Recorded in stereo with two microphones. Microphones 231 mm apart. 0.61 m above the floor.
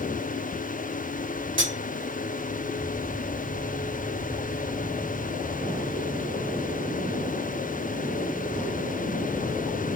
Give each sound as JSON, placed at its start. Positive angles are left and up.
{"t": 1.6, "sound": "cutlery clinking", "side_deg": -60, "distance_m": 1.1}